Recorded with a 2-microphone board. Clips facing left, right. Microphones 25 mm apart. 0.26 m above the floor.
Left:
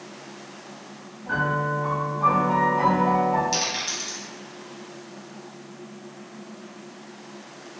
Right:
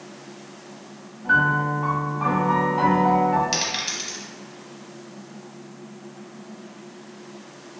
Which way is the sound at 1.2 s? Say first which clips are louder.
Right 5 dB; 35° right (ahead or behind).